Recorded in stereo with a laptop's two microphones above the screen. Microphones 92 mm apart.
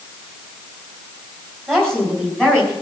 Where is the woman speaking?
5° left (ahead or behind), 5 m; by 2.7 s 10° left (ahead or behind), 6 m.